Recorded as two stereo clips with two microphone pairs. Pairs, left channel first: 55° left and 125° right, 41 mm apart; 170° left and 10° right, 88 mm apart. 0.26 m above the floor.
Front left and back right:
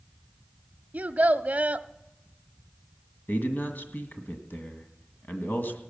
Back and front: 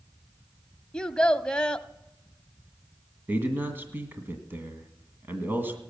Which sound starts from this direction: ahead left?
A man speaking, at 3.3 s.